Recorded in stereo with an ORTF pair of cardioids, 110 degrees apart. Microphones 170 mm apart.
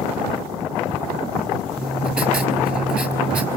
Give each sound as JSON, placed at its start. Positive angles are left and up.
{"t": 1.8, "sound": "writing", "azimuth_deg": -10, "distance_m": 5.0}